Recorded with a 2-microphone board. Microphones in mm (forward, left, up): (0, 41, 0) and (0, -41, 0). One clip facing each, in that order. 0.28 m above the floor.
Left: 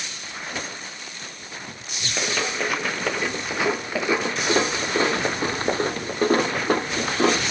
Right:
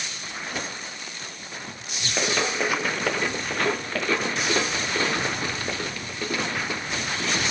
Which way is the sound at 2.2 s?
5° right (ahead or behind).